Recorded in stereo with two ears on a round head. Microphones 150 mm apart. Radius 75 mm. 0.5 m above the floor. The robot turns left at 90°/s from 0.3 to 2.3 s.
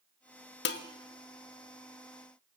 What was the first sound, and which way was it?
Dishes clattering, 65° left (ahead or behind).